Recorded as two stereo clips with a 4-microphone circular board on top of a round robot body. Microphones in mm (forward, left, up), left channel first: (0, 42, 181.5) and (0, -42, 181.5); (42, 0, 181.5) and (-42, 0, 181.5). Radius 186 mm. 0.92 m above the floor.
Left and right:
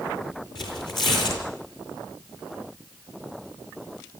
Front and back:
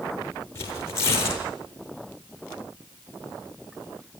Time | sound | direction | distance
0.6 | tearing paper | 55° left | 8.5 m